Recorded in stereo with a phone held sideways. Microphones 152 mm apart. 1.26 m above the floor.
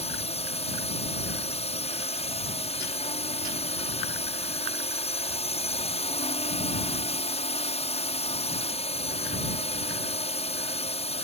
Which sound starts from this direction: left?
A drone, at 0.0 s.